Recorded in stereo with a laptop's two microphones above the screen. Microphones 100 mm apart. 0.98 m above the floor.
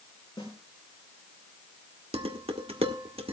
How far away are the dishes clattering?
About 1.5 m.